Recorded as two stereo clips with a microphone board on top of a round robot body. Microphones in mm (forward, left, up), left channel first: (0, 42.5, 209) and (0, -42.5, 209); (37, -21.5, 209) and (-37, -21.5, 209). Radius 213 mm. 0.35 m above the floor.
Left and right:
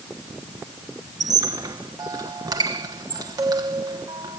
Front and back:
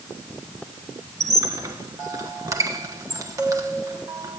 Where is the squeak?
135° right, 1.1 m.